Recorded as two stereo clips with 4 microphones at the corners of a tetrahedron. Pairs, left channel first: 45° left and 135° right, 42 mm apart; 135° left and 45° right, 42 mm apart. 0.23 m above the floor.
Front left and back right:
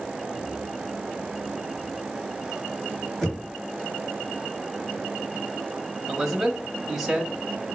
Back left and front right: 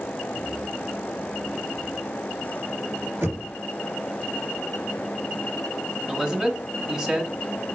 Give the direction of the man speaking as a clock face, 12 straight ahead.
2 o'clock.